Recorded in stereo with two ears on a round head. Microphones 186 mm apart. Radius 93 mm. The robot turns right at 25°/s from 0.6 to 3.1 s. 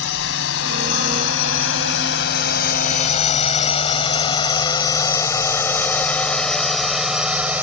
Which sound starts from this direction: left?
A drone, at 0.0 s.